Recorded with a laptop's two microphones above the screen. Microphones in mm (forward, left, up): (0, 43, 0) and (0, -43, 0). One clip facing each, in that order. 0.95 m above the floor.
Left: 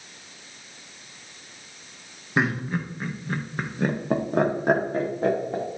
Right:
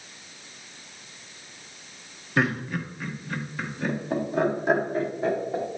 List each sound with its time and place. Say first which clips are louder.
2.4 s laughter: left 1 dB; 20° left (ahead or behind), 1.2 m; by 5.8 s 50° left (ahead or behind), 2 m